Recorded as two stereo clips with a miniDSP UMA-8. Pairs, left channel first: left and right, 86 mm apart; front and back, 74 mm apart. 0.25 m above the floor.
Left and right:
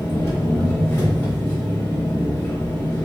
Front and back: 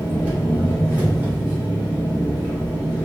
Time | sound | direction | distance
0.0 | an engine running | 130° left | 1.2 m